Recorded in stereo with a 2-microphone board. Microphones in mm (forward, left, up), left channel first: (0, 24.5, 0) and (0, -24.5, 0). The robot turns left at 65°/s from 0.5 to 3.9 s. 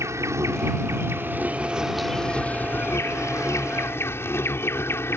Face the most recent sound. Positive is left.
turn(degrees=55)